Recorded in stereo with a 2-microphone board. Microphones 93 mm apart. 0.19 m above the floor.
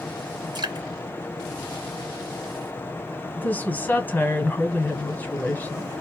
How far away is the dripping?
About 1.3 m.